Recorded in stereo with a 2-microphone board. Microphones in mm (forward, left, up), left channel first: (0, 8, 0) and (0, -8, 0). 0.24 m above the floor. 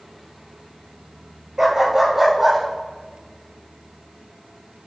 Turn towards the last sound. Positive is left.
turn(degrees=0)  # may be behind; listen again after turning